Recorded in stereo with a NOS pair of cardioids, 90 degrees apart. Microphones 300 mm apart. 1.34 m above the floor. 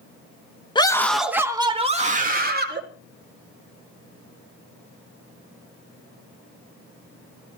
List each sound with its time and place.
0.8 s a scream: 15° left, 1.8 m; by 2.8 s 35° right, 3 m